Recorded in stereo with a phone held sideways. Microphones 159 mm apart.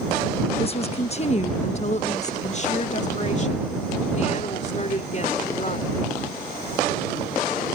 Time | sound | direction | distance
0.6 | a woman speaking | 35° left (ahead or behind) | ?